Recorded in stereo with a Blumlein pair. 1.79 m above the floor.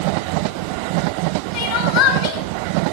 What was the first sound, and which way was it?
Crying, 45° left.